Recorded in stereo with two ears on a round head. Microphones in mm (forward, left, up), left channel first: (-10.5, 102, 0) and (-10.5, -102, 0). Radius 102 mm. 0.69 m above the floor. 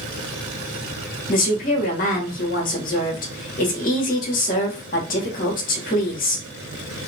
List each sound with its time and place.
1.3 s a woman speaking: 40° left (ahead or behind), 1.4 m